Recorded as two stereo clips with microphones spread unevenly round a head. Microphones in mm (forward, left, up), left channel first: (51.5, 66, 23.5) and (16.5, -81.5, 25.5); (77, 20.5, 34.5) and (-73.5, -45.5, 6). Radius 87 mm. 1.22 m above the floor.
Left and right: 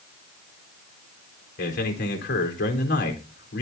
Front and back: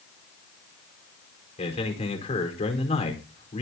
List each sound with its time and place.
1.6 s a man speaking: 80° left, 4.5 m